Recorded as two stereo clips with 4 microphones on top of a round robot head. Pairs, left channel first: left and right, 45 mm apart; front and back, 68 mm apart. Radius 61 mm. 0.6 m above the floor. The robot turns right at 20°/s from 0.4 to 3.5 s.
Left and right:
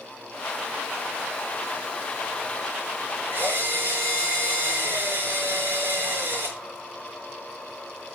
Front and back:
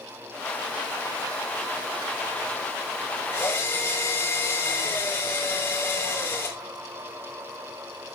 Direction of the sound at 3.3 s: 65° right.